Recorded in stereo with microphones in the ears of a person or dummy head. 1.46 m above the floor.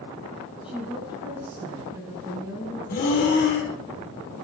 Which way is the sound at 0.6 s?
10° right (ahead or behind).